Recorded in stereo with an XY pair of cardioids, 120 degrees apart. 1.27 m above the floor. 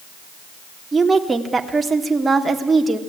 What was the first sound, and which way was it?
A woman speaking, 20° right.